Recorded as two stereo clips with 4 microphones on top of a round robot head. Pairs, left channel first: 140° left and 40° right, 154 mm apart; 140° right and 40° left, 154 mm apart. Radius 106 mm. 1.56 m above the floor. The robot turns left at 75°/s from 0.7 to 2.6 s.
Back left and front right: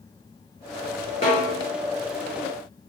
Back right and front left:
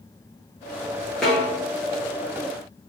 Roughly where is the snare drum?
Behind left.